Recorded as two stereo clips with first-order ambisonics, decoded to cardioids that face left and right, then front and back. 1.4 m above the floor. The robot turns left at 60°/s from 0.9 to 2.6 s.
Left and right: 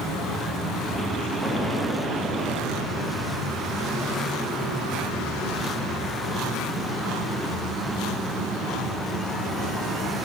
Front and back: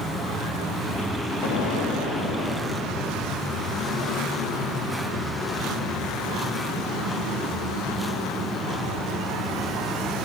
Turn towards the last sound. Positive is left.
turn(degrees=-55)